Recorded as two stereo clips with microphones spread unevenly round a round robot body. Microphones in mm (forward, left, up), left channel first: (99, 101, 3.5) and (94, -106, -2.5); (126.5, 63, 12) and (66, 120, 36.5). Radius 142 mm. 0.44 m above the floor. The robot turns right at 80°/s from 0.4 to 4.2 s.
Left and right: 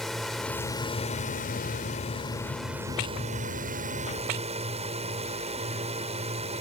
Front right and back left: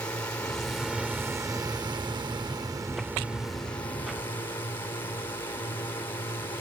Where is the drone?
Straight ahead; by 6.6 s 55° right.